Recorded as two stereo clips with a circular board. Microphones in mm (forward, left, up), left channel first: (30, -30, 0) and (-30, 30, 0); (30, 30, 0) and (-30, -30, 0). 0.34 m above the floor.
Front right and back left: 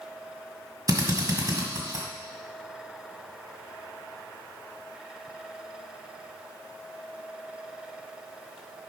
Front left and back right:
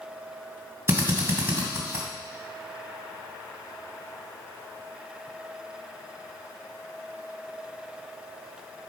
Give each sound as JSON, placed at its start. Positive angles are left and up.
{"t": 0.9, "sound": "a drill", "azimuth_deg": 170, "distance_m": 1.8}